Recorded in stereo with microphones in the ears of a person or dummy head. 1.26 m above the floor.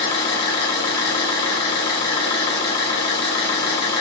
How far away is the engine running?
About 0.8 m.